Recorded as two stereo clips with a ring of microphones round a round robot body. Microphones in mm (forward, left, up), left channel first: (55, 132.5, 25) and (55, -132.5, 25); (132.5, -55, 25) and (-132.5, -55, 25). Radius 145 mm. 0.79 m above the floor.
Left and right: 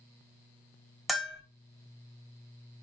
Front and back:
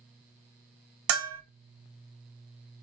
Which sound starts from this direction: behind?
A bell, at 1.1 s.